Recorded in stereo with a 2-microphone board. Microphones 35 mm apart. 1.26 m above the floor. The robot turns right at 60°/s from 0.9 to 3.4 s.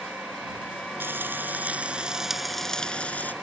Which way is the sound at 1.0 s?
85° right.